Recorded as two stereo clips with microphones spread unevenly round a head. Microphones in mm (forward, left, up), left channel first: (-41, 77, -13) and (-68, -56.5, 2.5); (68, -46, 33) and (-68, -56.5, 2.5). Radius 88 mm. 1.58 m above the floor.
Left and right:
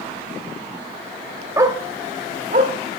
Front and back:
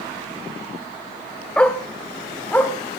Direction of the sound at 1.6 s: 55° right.